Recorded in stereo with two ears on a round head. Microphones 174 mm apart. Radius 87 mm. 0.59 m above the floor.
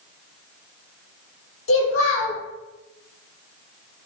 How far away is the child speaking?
About 0.9 m.